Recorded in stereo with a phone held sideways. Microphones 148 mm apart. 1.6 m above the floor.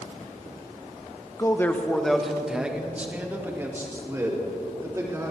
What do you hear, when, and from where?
1.4 s a man speaking: 20° left (ahead or behind), 1.0 m; by 5.3 s 25° right (ahead or behind), 3.5 m